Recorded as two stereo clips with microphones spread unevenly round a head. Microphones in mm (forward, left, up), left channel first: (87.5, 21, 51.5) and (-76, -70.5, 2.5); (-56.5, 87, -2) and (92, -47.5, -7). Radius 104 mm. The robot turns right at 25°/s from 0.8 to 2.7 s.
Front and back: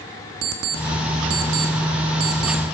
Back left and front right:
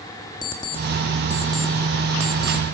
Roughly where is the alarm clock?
Behind right.